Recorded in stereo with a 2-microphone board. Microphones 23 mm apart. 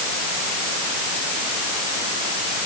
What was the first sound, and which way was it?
Only background noise.